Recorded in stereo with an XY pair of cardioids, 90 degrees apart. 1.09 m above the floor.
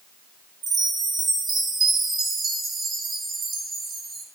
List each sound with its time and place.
0.6 s a chime: 70° right, 1.5 m